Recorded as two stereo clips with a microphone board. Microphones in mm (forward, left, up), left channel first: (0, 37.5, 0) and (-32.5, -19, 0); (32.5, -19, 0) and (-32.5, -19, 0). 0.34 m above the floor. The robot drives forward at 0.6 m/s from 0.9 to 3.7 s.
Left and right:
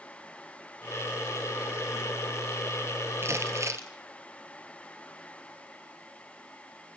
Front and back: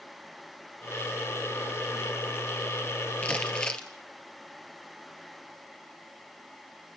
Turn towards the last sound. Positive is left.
turn(degrees=-75)